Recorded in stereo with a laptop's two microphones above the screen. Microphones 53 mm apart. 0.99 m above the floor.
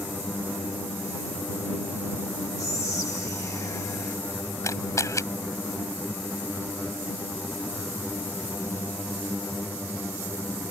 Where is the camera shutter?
80° left.